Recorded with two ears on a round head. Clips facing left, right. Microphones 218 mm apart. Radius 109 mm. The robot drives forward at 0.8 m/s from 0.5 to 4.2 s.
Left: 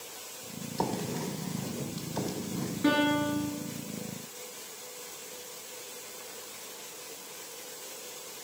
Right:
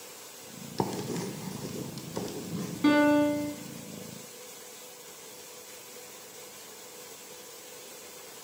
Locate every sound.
0.8 s writing: 45° right (ahead or behind), 1.0 m; by 2.7 s 25° right (ahead or behind), 1.6 m
2.8 s a piano: 55° right (ahead or behind), 1.9 m; by 3.5 s 70° right (ahead or behind), 1.7 m